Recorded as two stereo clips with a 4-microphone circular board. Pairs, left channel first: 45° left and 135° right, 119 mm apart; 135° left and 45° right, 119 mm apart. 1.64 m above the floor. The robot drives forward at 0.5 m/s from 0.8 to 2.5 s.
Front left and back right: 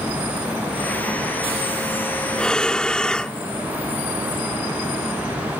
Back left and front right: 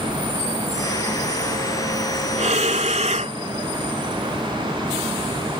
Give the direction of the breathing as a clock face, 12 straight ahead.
1 o'clock.